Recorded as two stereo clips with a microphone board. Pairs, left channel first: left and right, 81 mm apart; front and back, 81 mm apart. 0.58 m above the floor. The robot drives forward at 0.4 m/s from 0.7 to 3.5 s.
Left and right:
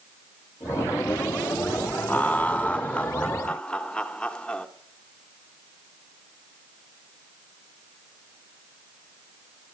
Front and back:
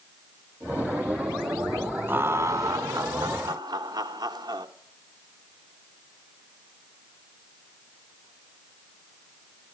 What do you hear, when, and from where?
2.1 s laughter: 140° left, 0.6 m; by 4.7 s 165° left, 1.0 m